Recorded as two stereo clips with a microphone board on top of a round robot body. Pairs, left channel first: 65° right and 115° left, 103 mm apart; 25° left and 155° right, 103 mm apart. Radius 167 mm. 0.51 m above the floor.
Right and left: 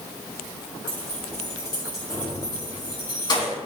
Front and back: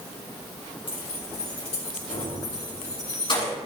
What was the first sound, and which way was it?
Keys jangling, 5° right.